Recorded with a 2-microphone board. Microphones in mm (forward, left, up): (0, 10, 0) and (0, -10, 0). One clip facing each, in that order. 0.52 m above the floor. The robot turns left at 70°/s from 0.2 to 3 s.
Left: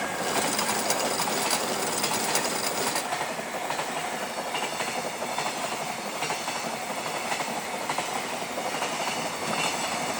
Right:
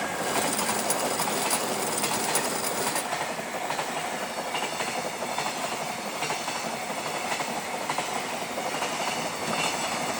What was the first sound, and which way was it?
Only background noise.